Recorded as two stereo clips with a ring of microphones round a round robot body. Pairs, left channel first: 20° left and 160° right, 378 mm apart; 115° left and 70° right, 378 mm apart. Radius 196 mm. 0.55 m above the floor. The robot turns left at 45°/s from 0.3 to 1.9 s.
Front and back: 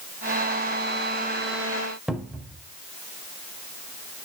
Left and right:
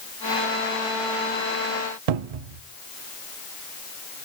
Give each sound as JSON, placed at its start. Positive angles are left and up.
{"t": 2.1, "sound": "a cupboard door", "azimuth_deg": -70, "distance_m": 0.6}